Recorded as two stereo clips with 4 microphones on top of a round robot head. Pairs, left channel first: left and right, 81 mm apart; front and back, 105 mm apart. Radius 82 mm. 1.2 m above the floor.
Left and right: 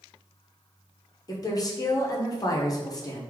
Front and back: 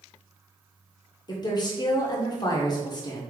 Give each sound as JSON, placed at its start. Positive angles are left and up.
{"t": 1.3, "sound": "a woman speaking", "azimuth_deg": 50, "distance_m": 0.9}